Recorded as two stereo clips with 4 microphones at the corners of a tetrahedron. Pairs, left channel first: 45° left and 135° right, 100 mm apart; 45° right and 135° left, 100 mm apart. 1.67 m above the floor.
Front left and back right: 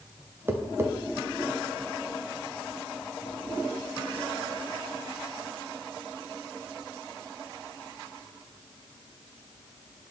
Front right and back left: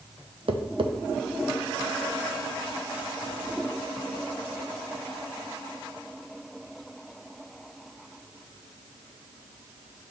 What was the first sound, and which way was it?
Tapping, 160° left.